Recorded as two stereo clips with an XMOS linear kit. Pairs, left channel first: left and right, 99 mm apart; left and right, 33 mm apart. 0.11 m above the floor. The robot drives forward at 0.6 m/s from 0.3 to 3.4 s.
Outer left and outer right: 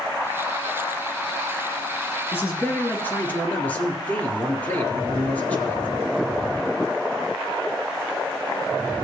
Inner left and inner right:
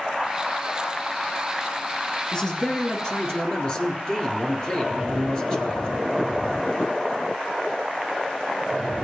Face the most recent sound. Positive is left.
turn(degrees=20)  # may be behind; listen again after turning